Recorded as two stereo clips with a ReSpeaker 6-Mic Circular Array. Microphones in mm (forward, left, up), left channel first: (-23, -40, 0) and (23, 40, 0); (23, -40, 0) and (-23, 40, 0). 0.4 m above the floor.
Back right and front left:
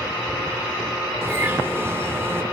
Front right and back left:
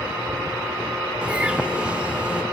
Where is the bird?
60° left, 0.5 m.